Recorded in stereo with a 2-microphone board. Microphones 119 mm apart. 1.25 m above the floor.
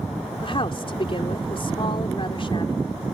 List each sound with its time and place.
0.4 s a woman speaking: 50° left (ahead or behind)